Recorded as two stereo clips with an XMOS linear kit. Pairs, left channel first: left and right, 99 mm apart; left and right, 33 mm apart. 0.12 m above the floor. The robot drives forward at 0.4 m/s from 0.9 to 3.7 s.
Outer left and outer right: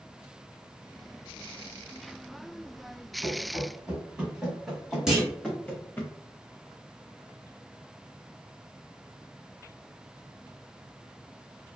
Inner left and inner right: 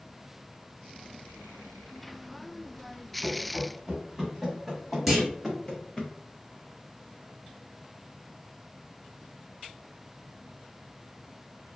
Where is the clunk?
5° right (ahead or behind), 1.7 m.